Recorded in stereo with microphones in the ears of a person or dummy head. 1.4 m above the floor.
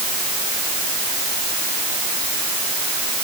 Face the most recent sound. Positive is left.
No sound to turn to.